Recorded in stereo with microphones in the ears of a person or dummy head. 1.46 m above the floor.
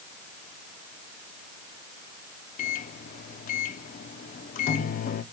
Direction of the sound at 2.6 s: 45° left (ahead or behind).